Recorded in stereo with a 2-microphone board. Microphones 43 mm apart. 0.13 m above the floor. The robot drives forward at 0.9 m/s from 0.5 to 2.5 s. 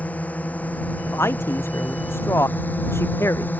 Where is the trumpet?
No trumpet in this recording.